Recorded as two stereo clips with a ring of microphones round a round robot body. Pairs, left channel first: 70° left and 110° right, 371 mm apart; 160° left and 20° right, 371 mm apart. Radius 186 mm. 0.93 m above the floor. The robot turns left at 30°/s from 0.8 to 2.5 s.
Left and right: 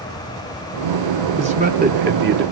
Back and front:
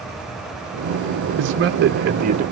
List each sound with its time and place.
1.4 s a man speaking: 50° right, 0.6 m; by 2.4 s 80° right, 0.6 m